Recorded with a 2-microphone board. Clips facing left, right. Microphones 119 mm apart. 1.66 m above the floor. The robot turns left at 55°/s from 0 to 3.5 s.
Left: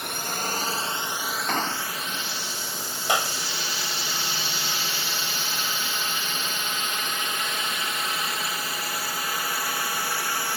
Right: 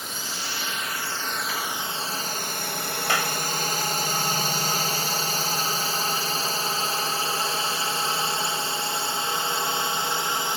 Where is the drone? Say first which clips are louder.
Left 4 dB; 65° left (ahead or behind); by 10.6 s 20° right (ahead or behind).